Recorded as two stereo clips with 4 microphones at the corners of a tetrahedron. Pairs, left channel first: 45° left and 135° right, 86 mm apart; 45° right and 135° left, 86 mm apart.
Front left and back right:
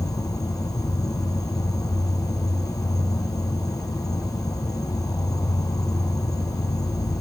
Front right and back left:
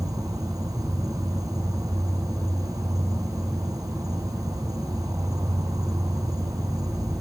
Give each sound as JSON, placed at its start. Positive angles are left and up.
{"t": 0.0, "sound": "an insect", "azimuth_deg": 90}